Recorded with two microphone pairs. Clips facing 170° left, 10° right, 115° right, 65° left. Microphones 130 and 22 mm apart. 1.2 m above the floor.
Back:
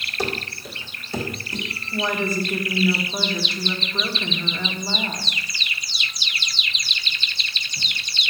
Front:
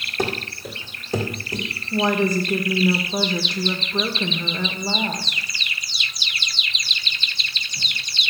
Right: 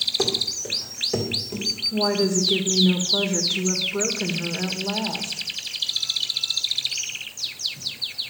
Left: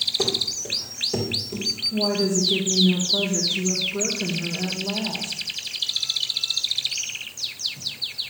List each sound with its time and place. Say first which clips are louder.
0.2 s running footsteps: front 2 dB, even; 40° right, 3.5 m; by 1.7 s 60° right, 3.5 m
1.9 s a woman speaking: front 4 dB, right 2 dB; 60° right, 1.7 m